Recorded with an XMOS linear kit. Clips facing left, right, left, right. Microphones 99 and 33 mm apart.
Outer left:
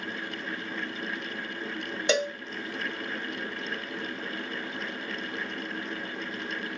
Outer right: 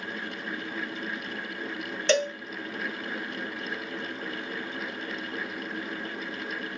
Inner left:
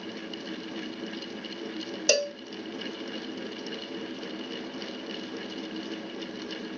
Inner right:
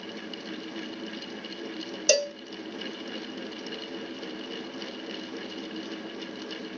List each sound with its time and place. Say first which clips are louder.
2.1 s a cowbell: outer right 2 dB, inner right 1 dB; 10° left (ahead or behind), 1.2 m